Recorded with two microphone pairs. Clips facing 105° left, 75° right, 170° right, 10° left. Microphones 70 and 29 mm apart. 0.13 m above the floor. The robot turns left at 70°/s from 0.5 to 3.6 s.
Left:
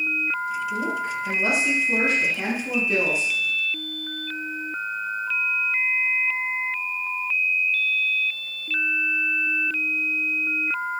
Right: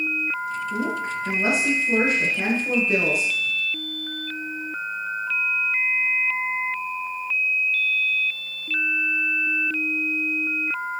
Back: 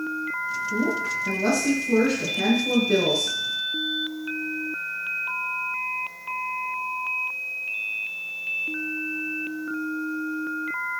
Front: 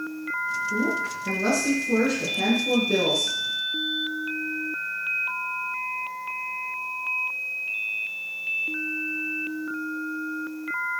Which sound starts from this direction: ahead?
A woman speaking, at 0.7 s.